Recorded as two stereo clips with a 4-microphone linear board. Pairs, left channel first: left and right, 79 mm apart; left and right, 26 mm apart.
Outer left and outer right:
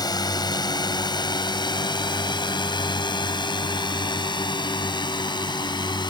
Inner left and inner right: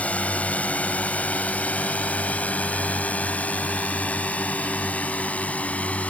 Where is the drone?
60° left (ahead or behind); by 6.1 s 75° left (ahead or behind).